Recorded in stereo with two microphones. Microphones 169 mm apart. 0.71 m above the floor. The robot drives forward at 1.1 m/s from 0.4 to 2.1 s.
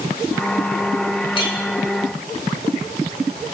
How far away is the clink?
About 2 m.